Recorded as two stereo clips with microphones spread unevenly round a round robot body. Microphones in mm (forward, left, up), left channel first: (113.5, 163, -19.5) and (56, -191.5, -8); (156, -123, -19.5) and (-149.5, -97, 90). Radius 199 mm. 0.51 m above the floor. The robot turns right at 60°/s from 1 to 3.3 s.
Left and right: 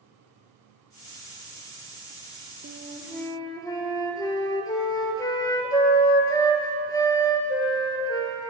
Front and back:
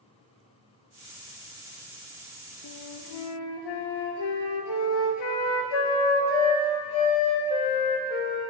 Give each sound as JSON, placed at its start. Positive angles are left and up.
{"t": 2.6, "sound": "a flute", "azimuth_deg": -40, "distance_m": 1.4}